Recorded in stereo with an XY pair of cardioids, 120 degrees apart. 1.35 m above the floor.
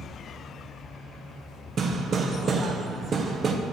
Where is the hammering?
40° right, 0.7 m.